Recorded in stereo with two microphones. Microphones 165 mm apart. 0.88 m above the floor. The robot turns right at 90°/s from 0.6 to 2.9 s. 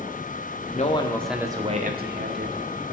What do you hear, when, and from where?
0.7 s a man speaking: 130° left, 1.8 m; by 2.6 s 65° right, 1.8 m